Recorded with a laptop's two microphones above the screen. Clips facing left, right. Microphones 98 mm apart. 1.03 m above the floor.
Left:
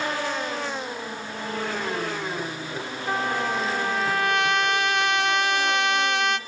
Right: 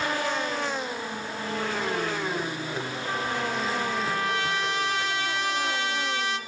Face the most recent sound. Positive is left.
turn(degrees=65)  # may be behind; listen again after turning